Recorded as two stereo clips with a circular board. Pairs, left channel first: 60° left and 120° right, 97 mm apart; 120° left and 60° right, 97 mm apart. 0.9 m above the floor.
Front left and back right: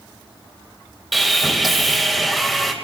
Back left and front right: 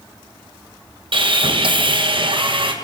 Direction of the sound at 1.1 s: 30° right.